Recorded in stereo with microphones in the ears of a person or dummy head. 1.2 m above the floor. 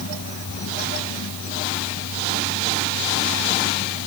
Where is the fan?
70° left (ahead or behind).